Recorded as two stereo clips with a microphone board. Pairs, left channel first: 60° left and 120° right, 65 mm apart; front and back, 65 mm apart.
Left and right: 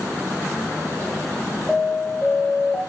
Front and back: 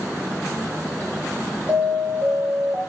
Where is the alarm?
140° left, 5 m.